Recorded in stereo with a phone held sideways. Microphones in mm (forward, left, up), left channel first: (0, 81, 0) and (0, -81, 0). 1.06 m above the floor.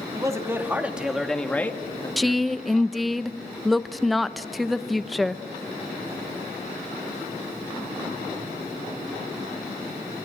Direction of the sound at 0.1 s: 20° right (ahead or behind).